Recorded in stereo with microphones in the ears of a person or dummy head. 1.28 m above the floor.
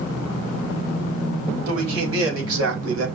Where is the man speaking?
85° right, 5.5 m; by 3.1 s 80° right, 4 m.